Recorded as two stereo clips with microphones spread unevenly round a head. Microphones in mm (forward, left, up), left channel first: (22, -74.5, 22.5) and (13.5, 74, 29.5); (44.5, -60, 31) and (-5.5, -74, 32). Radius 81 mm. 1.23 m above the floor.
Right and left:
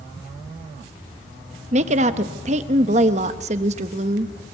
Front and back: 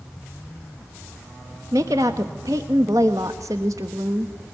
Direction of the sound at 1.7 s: 145° left.